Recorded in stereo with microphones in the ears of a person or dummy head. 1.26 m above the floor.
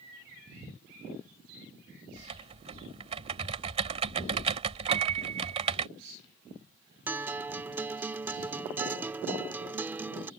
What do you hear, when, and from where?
2.2 s typing on a keyboard: 35° right (ahead or behind)
4.9 s a piano: 35° right (ahead or behind)
7.1 s a guitar: 15° right (ahead or behind)